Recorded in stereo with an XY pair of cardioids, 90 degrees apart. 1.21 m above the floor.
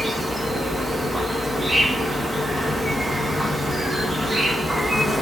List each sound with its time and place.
0.0 s an insect: 20° right, 0.8 m